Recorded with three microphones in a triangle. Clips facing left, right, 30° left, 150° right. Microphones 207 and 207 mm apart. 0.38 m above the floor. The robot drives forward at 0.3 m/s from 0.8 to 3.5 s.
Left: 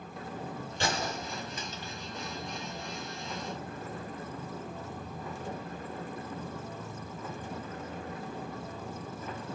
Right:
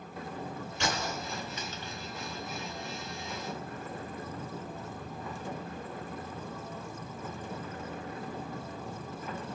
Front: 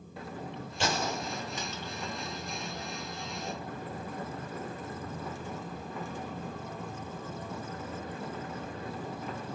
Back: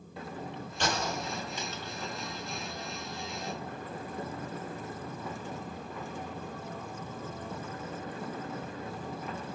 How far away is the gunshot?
About 1.4 m.